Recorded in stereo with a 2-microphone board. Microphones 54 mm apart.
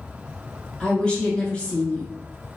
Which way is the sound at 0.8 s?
20° left (ahead or behind).